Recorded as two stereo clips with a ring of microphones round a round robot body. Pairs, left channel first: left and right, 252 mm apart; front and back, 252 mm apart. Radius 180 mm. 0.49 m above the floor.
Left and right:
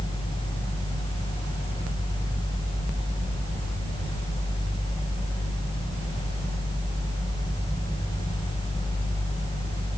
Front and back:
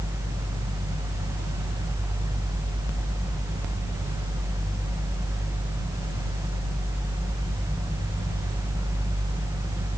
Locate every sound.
Only background noise.